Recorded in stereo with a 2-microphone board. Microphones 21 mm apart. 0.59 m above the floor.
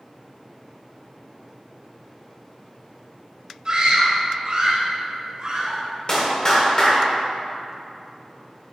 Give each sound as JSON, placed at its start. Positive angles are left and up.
{"t": 3.6, "sound": "a scream", "side_deg": -35, "distance_m": 2.5}
{"t": 6.1, "sound": "a clap", "side_deg": 40, "distance_m": 1.8}